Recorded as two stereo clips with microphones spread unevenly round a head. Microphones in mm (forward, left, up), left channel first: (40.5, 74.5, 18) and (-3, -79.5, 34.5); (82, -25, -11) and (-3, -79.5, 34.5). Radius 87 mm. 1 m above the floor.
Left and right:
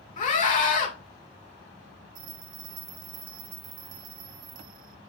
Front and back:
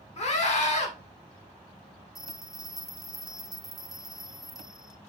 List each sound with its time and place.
0.2 s a scream: 30° left, 2.5 m
2.1 s a bell: 70° right, 1.1 m